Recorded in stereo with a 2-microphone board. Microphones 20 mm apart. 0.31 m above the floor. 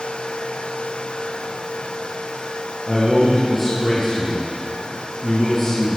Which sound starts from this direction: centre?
A man speaking, at 2.9 s.